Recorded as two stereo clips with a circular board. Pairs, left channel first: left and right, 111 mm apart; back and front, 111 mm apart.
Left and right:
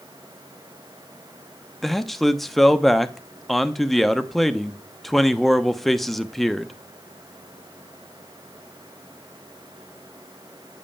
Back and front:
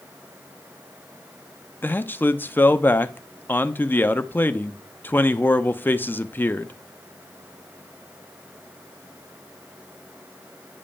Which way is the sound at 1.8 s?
175° left.